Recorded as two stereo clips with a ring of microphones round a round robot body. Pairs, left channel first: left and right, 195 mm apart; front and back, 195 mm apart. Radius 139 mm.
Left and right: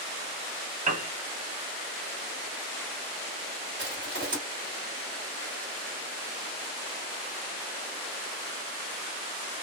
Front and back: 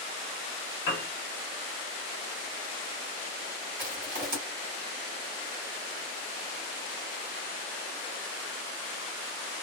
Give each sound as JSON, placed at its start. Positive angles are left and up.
{"t": 0.9, "sound": "a piano", "azimuth_deg": -65, "distance_m": 0.7}
{"t": 3.8, "sound": "crushing", "azimuth_deg": -150, "distance_m": 1.8}